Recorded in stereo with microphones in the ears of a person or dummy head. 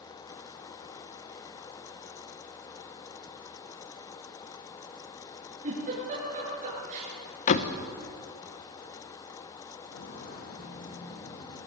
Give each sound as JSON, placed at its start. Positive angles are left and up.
{"t": 5.6, "sound": "a giggle", "side_deg": -40, "distance_m": 10.0}
{"t": 7.5, "sound": "a door slam", "side_deg": 35, "distance_m": 1.1}
{"t": 9.8, "sound": "footsteps", "side_deg": 60, "distance_m": 4.5}